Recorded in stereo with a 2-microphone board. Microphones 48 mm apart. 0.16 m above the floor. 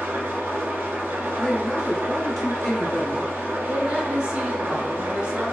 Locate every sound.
0.0 s an engine running: 55° right (ahead or behind), 0.9 m
1.4 s a man speaking: 5° left (ahead or behind), 1.6 m
3.6 s a woman speaking: 20° right (ahead or behind), 1.4 m